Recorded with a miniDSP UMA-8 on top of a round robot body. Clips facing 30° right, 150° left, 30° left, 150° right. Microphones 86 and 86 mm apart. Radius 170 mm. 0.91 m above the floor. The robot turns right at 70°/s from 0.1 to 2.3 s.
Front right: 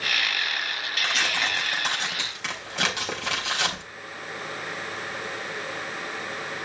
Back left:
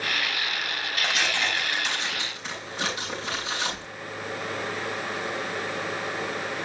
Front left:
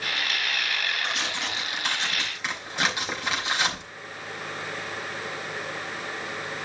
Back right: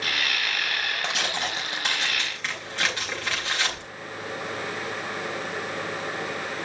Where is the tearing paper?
135° right, 4.5 m; by 3.8 s 45° right, 4.5 m.